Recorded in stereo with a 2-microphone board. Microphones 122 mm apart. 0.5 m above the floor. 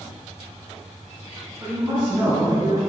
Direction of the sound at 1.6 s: 25° right (ahead or behind).